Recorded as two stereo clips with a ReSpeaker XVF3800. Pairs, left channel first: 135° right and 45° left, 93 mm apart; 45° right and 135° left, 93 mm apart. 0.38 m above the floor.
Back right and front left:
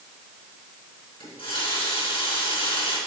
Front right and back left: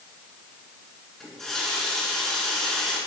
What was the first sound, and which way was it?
A running tap, 130° right.